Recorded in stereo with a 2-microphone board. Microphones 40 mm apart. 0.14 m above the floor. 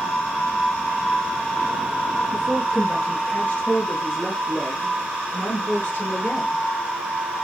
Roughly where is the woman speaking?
Left.